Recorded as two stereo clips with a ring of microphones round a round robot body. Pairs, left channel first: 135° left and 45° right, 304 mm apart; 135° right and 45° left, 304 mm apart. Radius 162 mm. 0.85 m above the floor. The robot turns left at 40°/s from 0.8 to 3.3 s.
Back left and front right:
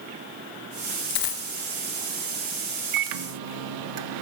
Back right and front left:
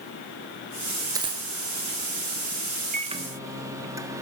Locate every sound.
1.1 s a dropped coin: 125° left, 1.9 m; by 1.5 s 110° left, 1.9 m
2.9 s a microwave: 20° right, 1.2 m; by 4.2 s 35° right, 1.2 m